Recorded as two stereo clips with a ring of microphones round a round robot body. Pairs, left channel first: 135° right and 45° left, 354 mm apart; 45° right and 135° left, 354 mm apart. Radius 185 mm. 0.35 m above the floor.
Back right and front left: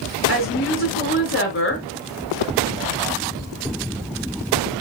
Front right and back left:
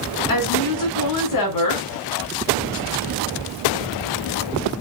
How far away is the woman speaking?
About 4.5 m.